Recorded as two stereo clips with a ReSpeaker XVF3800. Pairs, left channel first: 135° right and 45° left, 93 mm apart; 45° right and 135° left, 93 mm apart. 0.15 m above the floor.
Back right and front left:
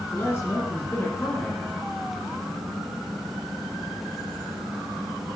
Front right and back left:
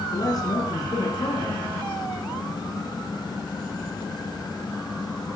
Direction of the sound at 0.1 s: 80° right.